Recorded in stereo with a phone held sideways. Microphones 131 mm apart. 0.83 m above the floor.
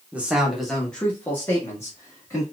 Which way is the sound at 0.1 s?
10° right (ahead or behind).